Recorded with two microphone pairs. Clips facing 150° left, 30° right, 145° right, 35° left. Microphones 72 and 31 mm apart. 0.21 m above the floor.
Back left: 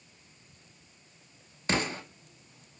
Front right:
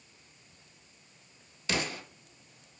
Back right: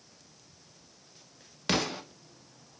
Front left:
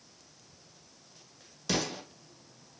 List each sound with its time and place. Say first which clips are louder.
1.7 s an explosion: back left 3 dB, back right 3 dB; 165° right, 0.5 m